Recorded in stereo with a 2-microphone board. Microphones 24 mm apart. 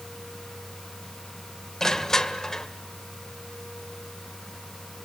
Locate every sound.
1.8 s crushing: 25° left (ahead or behind), 2.0 m